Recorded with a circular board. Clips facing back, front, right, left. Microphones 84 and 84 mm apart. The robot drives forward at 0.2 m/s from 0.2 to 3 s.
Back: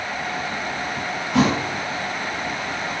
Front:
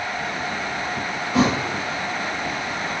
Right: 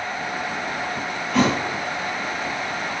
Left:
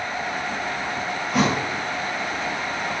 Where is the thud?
165° left, 2 m.